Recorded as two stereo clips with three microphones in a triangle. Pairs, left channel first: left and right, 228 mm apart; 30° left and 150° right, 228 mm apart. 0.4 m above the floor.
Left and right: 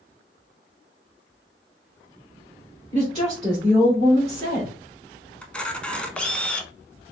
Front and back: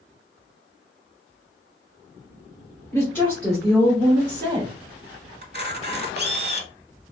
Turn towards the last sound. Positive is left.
turn(degrees=175)